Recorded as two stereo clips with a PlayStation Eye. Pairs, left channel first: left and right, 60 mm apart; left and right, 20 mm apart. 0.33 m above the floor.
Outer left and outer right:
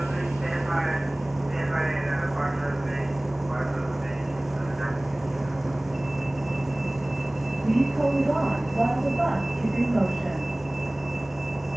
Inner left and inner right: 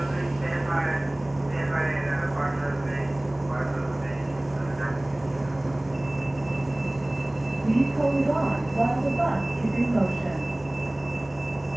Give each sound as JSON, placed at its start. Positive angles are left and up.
{"t": 0.0, "sound": "a vehicle", "side_deg": -5}